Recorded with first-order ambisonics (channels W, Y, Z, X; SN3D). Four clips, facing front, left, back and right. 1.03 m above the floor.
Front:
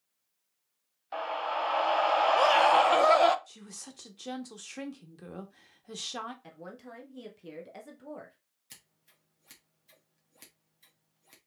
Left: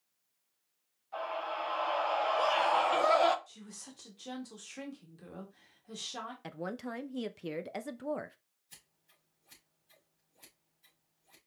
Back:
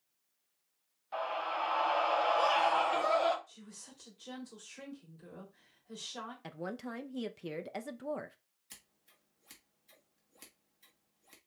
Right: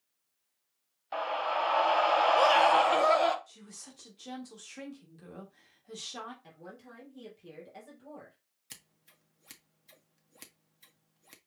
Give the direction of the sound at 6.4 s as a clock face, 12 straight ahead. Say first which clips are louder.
Left 10 dB, back 5 dB; 8 o'clock.